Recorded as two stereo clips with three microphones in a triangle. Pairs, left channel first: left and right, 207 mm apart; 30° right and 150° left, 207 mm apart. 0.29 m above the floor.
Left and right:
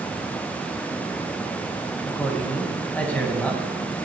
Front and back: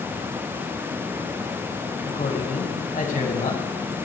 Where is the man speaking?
10° left, 2.5 m.